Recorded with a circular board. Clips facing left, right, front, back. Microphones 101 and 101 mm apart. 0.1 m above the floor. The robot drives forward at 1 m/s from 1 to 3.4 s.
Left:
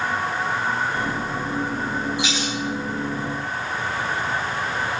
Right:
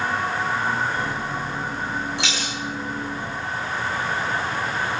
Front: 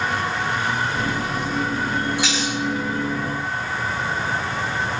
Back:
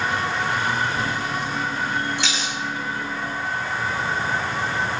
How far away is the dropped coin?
About 3.5 m.